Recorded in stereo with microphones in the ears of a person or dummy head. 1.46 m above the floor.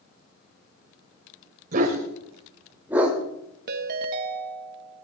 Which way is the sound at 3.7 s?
55° right (ahead or behind).